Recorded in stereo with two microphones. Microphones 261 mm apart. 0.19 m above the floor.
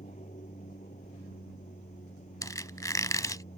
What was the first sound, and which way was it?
An aircraft, 30° left (ahead or behind).